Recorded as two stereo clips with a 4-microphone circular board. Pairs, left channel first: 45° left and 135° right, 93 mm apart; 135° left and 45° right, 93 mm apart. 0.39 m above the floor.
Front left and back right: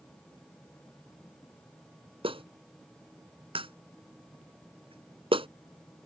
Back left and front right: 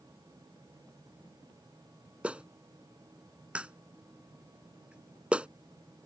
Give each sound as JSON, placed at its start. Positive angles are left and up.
{"t": 2.2, "sound": "a clap", "azimuth_deg": -120}